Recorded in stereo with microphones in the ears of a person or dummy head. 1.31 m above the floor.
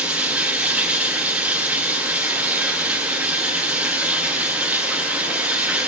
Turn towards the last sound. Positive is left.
turn(degrees=-10)  # may be behind; listen again after turning